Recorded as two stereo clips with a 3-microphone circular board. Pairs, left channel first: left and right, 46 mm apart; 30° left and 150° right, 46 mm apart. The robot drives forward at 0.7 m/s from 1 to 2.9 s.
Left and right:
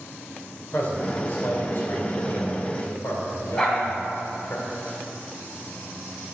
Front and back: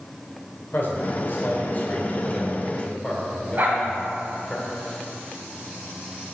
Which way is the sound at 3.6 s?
170° left.